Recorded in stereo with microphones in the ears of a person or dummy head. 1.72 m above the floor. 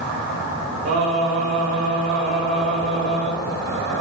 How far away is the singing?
About 4.5 m.